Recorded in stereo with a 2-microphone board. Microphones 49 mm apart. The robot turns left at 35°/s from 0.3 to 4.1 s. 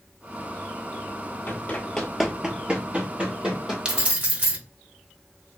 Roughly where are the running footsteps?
Left.